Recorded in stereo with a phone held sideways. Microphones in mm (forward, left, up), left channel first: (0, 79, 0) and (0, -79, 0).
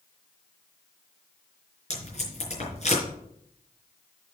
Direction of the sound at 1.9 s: 45° left (ahead or behind).